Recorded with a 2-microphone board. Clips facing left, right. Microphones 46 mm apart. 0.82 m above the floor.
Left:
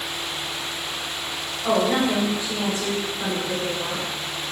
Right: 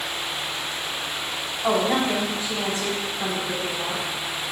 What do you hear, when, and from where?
1.6 s a woman speaking: 35° right (ahead or behind), 2 m